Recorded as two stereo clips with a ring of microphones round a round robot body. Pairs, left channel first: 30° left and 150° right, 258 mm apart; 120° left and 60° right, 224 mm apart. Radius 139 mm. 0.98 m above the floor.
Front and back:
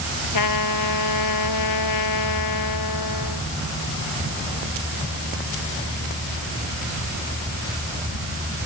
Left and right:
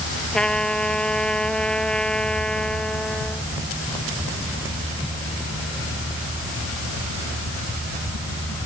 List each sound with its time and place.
0.3 s a trumpet: 35° left